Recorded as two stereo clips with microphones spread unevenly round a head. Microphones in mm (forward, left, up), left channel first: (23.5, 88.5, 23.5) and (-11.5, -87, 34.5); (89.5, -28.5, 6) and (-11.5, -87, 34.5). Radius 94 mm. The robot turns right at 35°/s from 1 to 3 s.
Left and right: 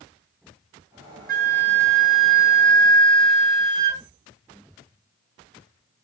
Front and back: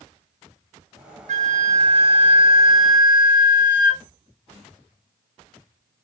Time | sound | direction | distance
1.3 | a flute | 135° right | 1.1 m